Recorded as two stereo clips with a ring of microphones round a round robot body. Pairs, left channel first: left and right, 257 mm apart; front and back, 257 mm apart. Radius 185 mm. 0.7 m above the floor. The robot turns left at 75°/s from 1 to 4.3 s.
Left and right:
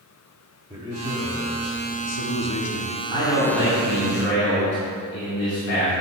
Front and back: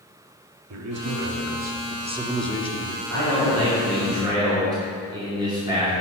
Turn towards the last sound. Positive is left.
turn(degrees=105)